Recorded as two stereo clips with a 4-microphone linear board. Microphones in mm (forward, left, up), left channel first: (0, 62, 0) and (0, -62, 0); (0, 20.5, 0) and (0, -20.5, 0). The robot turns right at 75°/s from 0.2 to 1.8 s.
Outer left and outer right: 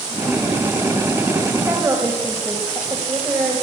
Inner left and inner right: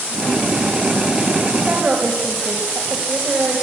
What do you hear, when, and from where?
1.6 s a woman speaking: 10° right (ahead or behind), 2.5 m; by 3.6 s 20° right (ahead or behind), 2.5 m